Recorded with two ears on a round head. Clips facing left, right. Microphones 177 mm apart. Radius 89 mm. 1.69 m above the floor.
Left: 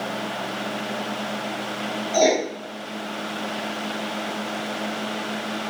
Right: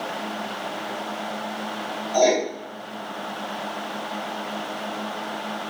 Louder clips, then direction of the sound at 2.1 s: Even; 25° left (ahead or behind).